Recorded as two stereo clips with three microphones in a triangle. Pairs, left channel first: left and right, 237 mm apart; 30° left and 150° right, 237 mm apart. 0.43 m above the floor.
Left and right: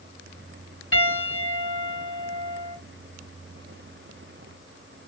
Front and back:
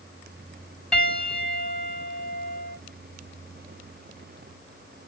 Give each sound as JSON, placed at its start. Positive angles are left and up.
{"t": 0.9, "sound": "a piano", "azimuth_deg": 120, "distance_m": 2.5}